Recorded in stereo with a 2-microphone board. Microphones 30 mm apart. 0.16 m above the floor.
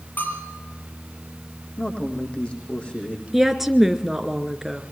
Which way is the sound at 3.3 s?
5° right (ahead or behind).